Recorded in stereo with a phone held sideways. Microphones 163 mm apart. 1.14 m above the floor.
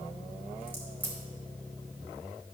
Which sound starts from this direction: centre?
A crack, at 0.7 s.